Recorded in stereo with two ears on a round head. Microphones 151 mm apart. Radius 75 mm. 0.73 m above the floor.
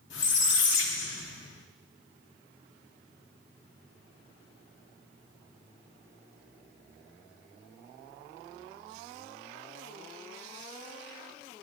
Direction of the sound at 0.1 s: 75° left (ahead or behind).